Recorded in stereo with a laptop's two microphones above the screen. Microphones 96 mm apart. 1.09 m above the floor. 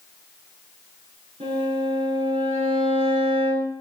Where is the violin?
85° right, 7 m.